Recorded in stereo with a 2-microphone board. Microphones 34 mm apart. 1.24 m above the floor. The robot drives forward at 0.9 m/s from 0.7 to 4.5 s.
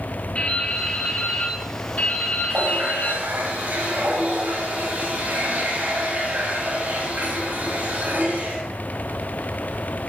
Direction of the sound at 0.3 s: 35° left (ahead or behind).